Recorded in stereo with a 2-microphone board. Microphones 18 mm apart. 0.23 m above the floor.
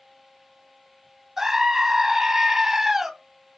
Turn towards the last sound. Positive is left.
turn(degrees=-25)  # may be behind; listen again after turning